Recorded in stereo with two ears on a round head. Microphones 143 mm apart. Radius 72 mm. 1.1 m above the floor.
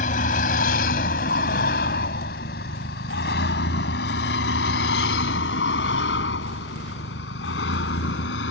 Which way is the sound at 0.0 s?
50° left (ahead or behind).